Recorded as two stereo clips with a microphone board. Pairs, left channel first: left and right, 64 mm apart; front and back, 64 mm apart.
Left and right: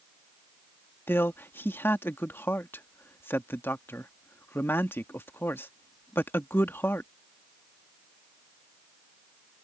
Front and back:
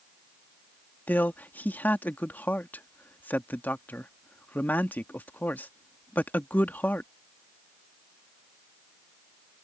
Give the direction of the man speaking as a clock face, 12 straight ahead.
10 o'clock.